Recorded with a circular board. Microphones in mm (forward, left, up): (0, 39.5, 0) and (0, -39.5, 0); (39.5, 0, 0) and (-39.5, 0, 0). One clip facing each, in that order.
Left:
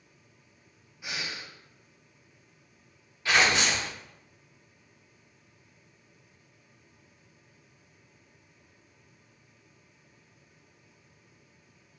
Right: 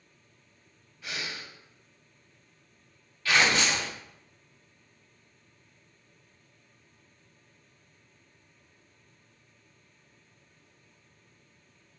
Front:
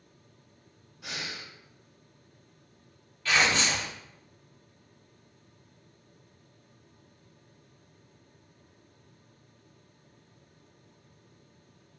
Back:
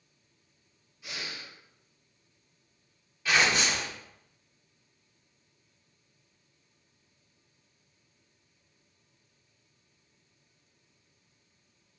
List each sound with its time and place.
1.0 s breathing: 15° left, 0.6 m
3.2 s tearing paper: 115° left, 1.2 m